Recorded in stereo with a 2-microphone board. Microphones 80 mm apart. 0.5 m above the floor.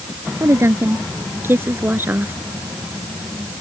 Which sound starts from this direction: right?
A woman speaking, at 0.4 s.